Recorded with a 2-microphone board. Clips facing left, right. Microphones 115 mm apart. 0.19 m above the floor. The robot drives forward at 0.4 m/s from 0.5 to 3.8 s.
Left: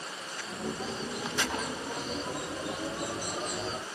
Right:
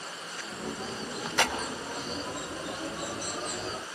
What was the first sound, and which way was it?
A clap, 65° right (ahead or behind).